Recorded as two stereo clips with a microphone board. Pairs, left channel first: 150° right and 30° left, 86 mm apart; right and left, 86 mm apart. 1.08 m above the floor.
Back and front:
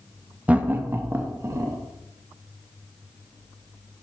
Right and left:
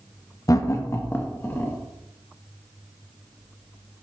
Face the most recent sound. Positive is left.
turn(degrees=-25)